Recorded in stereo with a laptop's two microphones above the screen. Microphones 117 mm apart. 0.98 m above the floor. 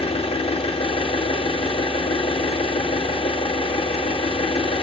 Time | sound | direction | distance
0.0 | an engine running | 50° left (ahead or behind) | 0.9 m